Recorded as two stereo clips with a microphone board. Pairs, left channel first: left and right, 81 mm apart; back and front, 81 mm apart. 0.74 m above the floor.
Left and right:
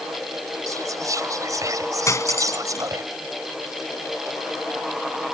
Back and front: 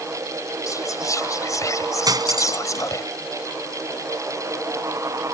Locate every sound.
0.7 s whispering: 135° right
2.1 s cutlery clinking: 35° left